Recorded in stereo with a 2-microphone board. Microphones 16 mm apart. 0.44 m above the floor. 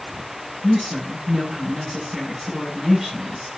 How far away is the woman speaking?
About 6 m.